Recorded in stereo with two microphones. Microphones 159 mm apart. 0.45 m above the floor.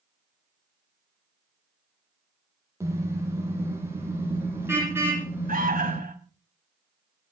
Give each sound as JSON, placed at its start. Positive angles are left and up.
{"t": 2.8, "sound": "a car horn", "side_deg": -20, "distance_m": 8.5}
{"t": 5.5, "sound": "an alarm", "side_deg": -60, "distance_m": 3.5}